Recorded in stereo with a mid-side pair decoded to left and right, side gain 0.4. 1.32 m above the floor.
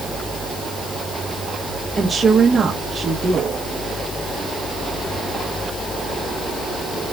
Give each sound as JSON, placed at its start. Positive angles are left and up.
{"t": 2.0, "sound": "a woman speaking", "azimuth_deg": -40, "distance_m": 2.5}